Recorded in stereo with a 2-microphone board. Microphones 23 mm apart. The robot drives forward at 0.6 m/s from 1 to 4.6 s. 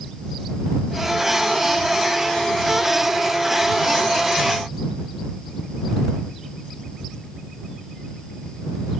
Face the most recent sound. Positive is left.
No sound to turn to.